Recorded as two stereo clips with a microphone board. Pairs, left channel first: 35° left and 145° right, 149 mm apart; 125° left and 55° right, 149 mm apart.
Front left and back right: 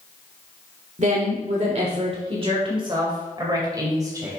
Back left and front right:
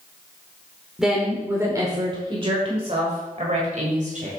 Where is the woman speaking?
140° right, 1.5 m; by 4.3 s 80° right, 2.5 m.